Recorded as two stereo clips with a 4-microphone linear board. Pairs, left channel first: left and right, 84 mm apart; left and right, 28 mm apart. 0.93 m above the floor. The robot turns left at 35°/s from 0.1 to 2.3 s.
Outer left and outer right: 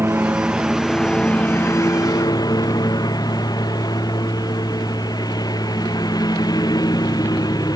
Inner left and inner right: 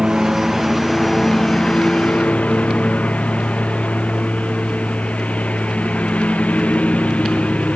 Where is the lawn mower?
155° right; by 7.8 s 130° left.